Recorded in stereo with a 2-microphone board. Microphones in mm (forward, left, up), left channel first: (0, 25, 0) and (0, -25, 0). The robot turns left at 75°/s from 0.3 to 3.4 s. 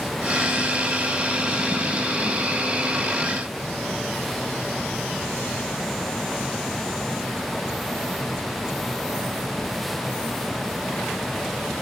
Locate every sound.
Only background noise.